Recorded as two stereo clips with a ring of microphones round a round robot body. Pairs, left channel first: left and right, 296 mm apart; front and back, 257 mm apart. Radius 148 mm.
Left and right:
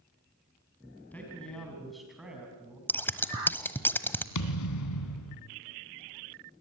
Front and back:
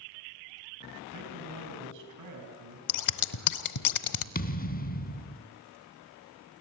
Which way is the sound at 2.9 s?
5° left.